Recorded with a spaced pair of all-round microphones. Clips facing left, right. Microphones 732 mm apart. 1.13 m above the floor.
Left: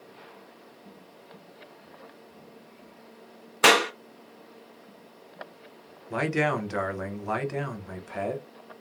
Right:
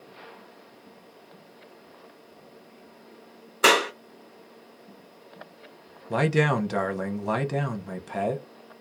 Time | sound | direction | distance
3.6 | a clap | 30° left (ahead or behind) | 0.6 m
6.1 | a man speaking | 65° right (ahead or behind) | 0.7 m